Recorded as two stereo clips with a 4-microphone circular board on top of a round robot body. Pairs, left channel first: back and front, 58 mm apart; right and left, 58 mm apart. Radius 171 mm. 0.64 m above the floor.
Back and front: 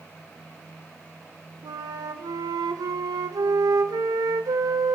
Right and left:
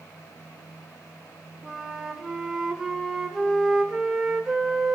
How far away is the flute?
About 0.7 m.